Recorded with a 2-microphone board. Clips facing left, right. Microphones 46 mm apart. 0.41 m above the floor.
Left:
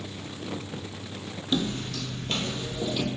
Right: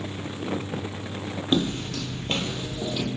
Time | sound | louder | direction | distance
1.5 | footsteps | right 3 dB | 50° right (ahead or behind) | 0.6 m